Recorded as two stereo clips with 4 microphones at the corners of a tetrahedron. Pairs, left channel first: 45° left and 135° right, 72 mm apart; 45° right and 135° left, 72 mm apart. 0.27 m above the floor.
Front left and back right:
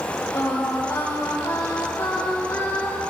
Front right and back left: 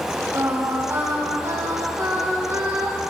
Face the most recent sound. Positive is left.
turn(degrees=85)